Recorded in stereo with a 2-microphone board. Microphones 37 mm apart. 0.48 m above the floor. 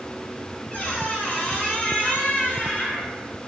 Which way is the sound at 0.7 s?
30° left (ahead or behind).